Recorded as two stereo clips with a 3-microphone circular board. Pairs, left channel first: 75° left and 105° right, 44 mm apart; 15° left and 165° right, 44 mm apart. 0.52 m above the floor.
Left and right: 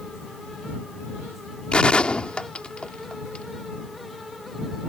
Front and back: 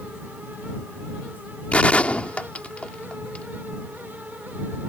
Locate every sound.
1.7 s a gunshot: 35° left